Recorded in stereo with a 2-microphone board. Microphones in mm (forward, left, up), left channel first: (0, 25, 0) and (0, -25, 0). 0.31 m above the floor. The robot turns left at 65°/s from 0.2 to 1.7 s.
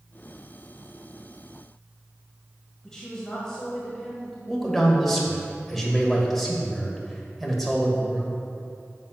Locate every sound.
2.8 s a woman speaking: 15° left (ahead or behind), 1.7 m
4.5 s a man speaking: 5° left (ahead or behind), 1.3 m